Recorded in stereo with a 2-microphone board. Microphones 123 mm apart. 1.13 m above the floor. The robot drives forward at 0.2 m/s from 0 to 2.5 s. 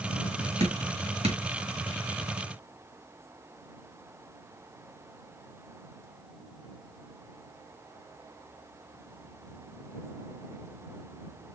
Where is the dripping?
60° right (ahead or behind), 1.9 m; by 1.4 s 55° right (ahead or behind), 1.9 m.